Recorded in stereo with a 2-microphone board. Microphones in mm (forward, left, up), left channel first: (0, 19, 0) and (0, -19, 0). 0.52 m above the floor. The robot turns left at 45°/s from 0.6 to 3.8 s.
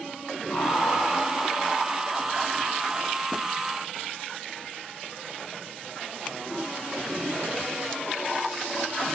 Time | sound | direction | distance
0.5 | laughter | 85° left | 3.5 m